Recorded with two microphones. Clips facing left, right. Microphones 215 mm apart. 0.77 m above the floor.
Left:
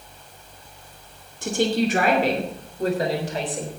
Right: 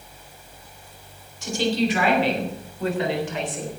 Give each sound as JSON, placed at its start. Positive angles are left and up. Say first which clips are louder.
{"t": 1.4, "sound": "a woman speaking", "louder": "left 1 dB", "side_deg": 50, "distance_m": 2.5}